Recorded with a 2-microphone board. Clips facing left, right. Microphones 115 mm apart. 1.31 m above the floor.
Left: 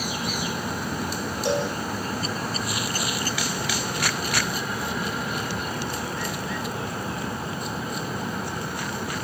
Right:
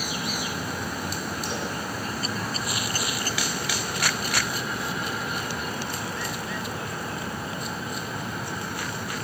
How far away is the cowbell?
About 6 m.